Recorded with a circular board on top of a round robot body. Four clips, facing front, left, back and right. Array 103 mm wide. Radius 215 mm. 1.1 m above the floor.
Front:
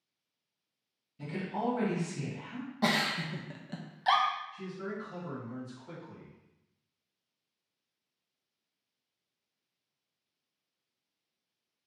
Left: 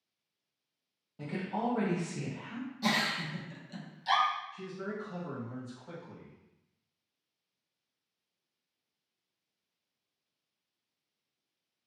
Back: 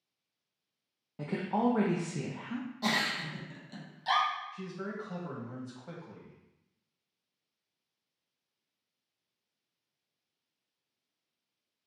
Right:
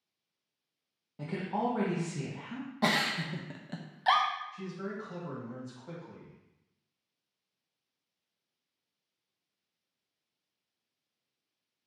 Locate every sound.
1.2 s a woman speaking: 170° right, 0.8 m
2.8 s a giggle: 60° right, 0.6 m
4.5 s a man speaking: 165° right, 1.6 m